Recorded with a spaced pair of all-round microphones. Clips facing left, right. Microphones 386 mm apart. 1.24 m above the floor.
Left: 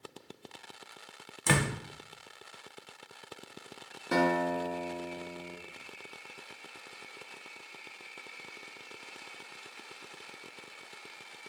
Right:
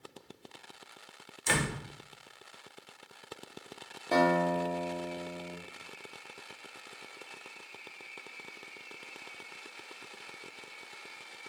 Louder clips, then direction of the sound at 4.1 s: Right 1 dB; 20° left (ahead or behind).